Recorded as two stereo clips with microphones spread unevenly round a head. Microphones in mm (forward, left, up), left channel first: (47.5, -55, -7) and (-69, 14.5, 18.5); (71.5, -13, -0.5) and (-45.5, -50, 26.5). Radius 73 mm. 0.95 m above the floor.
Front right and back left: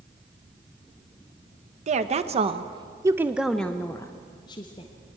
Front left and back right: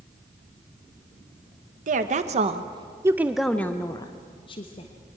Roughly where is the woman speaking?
Behind.